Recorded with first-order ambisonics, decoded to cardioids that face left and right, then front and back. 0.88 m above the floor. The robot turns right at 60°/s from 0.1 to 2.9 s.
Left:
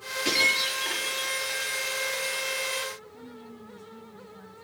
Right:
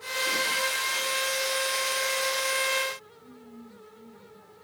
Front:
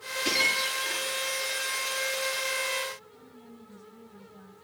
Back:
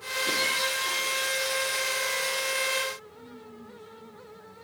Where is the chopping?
I don't hear chopping.